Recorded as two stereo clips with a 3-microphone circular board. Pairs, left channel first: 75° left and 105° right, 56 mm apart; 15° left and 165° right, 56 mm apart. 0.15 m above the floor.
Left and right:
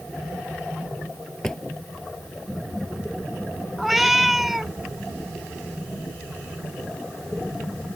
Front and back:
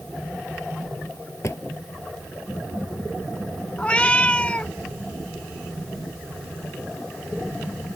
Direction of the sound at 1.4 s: Straight ahead.